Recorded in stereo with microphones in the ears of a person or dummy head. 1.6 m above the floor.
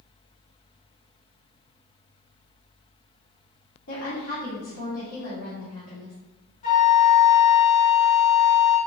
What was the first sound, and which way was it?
A woman speaking, 75° left (ahead or behind).